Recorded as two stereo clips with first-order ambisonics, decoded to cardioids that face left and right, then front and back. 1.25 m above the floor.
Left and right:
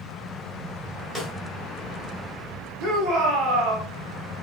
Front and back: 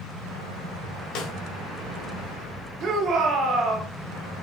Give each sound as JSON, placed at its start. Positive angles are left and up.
{"t": 1.1, "sound": "a snare drum", "azimuth_deg": 5, "distance_m": 1.6}
{"t": 2.8, "sound": "a shout", "azimuth_deg": -130, "distance_m": 1.4}